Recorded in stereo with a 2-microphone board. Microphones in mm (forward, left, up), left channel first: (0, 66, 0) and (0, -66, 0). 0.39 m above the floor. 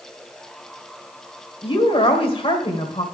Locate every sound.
1.6 s a woman speaking: 45° left (ahead or behind), 1.6 m